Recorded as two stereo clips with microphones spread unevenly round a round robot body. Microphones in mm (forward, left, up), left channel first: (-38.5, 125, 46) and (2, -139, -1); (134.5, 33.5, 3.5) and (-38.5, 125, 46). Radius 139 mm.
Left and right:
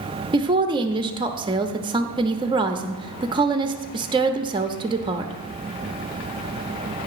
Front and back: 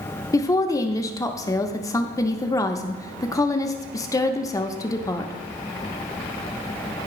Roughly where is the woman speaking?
Ahead right.